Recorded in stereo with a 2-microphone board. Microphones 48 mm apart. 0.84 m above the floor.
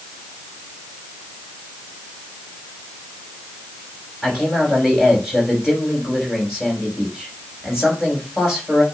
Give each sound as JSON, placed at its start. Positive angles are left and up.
{"t": 4.2, "sound": "a man speaking", "side_deg": -5, "distance_m": 5.5}